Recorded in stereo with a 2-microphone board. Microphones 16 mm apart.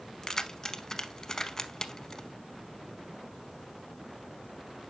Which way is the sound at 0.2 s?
30° left (ahead or behind).